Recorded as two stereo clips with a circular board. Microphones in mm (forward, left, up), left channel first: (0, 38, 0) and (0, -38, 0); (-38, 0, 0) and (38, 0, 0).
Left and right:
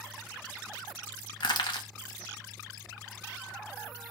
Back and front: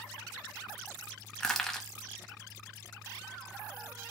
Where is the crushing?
95° left, 0.6 m.